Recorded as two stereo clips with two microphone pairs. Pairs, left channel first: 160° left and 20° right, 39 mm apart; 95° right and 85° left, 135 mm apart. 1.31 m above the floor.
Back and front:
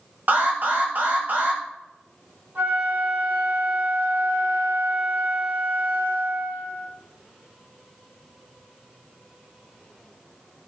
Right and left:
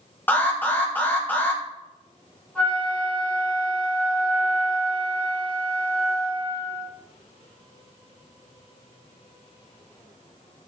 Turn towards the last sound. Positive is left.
turn(degrees=-15)